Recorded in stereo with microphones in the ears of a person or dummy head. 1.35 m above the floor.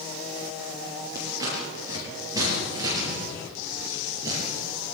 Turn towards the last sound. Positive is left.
turn(degrees=-25)  # may be behind; listen again after turning